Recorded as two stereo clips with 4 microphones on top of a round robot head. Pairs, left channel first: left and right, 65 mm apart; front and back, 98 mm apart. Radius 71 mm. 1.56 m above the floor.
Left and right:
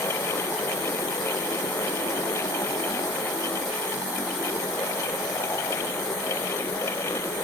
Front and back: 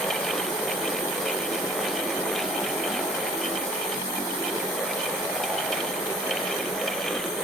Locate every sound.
Only background noise.